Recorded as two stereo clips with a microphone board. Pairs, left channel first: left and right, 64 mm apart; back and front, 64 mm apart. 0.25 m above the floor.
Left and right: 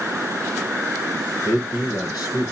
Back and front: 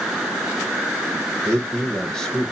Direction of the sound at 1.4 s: 105° left.